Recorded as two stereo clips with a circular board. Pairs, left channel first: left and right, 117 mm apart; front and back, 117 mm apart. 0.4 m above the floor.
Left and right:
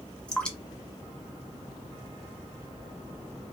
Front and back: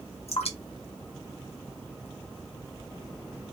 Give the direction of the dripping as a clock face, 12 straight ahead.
12 o'clock.